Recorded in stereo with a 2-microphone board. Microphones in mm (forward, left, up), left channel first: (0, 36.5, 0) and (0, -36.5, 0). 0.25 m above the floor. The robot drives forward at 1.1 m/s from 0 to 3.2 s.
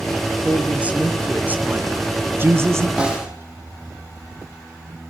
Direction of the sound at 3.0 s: 15° right (ahead or behind).